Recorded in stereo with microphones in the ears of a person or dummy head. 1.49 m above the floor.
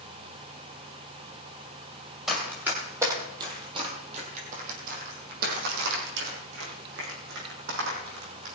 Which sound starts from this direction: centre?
Running footsteps, at 2.3 s.